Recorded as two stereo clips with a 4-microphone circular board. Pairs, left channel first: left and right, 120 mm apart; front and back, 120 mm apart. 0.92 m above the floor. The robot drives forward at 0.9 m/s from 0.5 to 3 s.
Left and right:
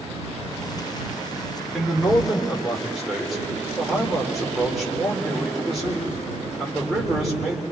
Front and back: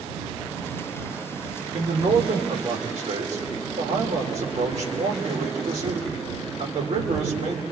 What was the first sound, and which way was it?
A man speaking, straight behind.